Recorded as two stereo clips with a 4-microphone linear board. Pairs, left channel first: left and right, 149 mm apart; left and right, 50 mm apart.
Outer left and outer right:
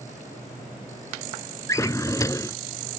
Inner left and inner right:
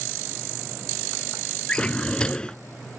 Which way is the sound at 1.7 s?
20° left (ahead or behind).